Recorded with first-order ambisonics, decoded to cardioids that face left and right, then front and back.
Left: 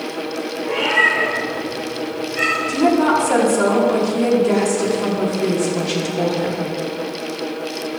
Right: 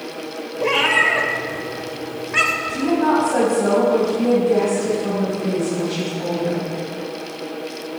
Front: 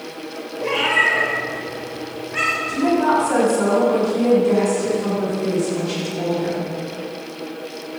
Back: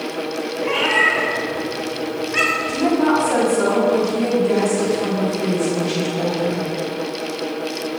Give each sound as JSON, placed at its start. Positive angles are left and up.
{"t": 0.6, "sound": "a cat meowing", "azimuth_deg": -90, "distance_m": 3.0}
{"t": 2.7, "sound": "a woman speaking", "azimuth_deg": 100, "distance_m": 4.5}